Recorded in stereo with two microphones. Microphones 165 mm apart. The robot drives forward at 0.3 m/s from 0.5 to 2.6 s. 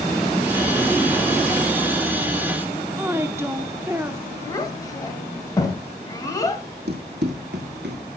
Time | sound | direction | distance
3.0 | a woman speaking | 15° right (ahead or behind) | 0.8 m
4.5 | a child speaking | 20° left (ahead or behind) | 1.8 m
6.9 | running footsteps | 75° right (ahead or behind) | 1.4 m